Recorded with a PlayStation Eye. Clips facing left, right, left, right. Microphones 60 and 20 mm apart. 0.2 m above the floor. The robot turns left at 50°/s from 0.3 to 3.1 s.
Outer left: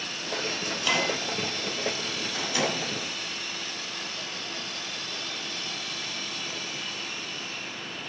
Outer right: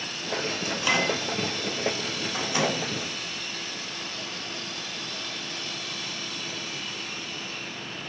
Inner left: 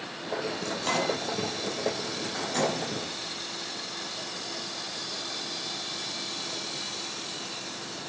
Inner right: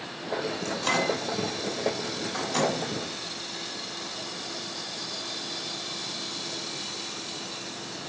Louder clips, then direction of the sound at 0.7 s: Outer right 2 dB, inner right 2 dB; 10° right (ahead or behind).